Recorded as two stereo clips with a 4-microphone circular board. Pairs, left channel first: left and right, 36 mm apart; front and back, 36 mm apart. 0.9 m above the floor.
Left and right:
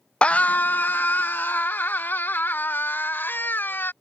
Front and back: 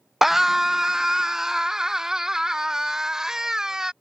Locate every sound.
0.2 s a scream: 100° left; by 3.9 s 105° left